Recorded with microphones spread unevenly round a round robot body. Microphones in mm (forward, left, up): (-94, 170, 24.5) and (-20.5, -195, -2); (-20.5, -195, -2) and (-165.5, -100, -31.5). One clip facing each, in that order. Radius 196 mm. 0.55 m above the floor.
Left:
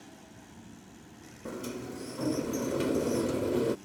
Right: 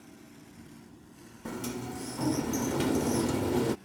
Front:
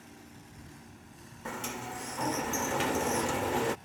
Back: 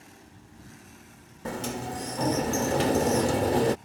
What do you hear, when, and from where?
1.4 s a sliding door: 155° right